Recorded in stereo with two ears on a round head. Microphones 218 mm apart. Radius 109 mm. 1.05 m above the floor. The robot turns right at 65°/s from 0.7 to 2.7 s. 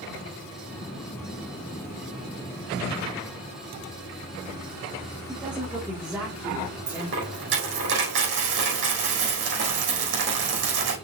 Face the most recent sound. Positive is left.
turn(degrees=-50)  # may be behind; listen again after turning